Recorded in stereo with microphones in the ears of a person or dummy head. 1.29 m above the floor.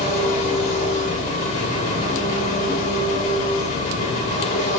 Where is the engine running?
45° left (ahead or behind), 3.5 m.